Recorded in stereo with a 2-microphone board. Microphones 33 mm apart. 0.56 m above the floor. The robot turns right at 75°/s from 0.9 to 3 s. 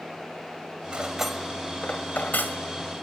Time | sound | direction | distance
0.9 | cutlery clinking | 30° right (ahead or behind) | 1.5 m